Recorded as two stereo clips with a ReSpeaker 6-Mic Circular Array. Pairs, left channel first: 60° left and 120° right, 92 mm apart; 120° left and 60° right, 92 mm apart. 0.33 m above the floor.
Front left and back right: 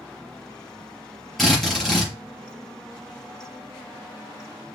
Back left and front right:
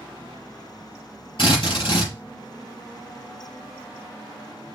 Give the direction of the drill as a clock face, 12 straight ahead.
7 o'clock.